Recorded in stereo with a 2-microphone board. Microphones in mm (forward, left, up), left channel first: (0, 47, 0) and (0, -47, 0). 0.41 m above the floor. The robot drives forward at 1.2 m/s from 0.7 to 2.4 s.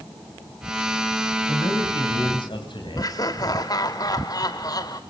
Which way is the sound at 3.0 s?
40° left (ahead or behind).